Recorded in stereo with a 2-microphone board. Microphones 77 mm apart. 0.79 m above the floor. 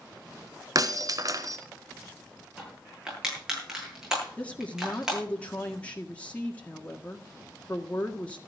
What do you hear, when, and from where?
0.8 s breaking glass: 50° right (ahead or behind), 1.4 m
2.6 s crushing: 10° right (ahead or behind), 9 m
4.4 s a woman speaking: 15° left (ahead or behind), 1.7 m